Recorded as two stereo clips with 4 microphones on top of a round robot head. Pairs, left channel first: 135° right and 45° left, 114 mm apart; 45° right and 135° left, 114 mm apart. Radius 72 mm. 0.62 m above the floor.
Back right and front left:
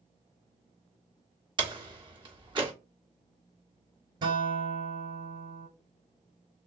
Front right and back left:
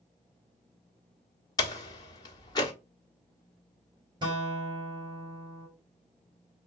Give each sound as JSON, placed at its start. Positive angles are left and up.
{"t": 1.6, "sound": "a door slam", "azimuth_deg": 5, "distance_m": 1.4}
{"t": 4.2, "sound": "a guitar", "azimuth_deg": 90, "distance_m": 3.0}